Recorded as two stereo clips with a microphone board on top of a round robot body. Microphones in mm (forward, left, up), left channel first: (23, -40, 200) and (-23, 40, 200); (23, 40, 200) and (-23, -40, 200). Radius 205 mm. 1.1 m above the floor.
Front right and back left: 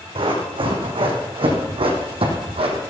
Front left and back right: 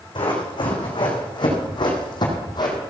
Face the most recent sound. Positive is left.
turn(degrees=105)